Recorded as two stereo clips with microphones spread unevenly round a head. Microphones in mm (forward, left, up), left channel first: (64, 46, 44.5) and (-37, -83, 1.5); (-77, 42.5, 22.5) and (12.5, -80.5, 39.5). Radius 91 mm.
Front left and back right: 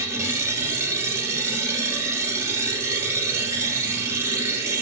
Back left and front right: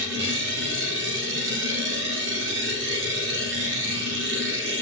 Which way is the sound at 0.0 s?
50° right.